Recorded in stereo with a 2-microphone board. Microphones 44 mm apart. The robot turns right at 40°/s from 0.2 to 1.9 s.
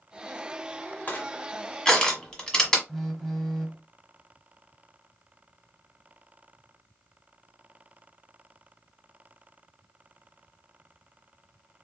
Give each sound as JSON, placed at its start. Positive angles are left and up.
{"t": 1.1, "sound": "crushing", "side_deg": 35, "distance_m": 1.3}
{"t": 2.9, "sound": "a phone buzzing", "side_deg": 5, "distance_m": 0.9}